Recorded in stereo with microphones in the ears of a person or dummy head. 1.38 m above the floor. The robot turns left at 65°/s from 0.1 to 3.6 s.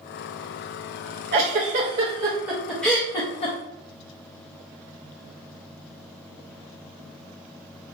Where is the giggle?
35° right (ahead or behind), 0.7 m; by 3.5 s 30° left (ahead or behind), 0.7 m.